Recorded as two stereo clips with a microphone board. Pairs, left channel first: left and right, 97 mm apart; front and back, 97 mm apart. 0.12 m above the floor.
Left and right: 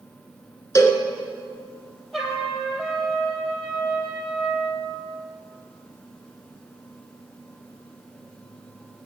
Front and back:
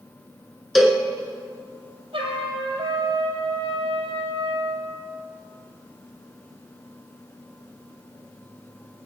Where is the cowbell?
95° left, 1.5 m.